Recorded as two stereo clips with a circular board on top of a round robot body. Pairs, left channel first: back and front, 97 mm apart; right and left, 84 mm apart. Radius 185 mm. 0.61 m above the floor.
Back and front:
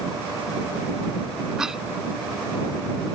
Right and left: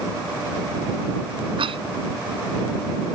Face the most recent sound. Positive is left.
turn(degrees=85)